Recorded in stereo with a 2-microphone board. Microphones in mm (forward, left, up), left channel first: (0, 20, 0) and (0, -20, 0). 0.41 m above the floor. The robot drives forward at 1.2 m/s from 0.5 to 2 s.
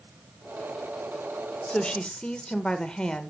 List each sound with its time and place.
1.7 s a woman speaking: 25° left (ahead or behind), 0.8 m; by 3.3 s 20° left (ahead or behind), 1.0 m